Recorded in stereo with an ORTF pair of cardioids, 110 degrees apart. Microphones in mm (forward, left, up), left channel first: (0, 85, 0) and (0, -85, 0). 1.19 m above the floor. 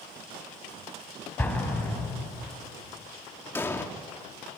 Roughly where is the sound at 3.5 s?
Ahead.